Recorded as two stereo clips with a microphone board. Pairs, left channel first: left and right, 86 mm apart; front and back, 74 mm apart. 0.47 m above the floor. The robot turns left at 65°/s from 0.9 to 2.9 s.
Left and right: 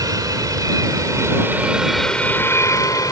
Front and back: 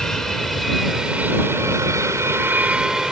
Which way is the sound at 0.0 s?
80° right.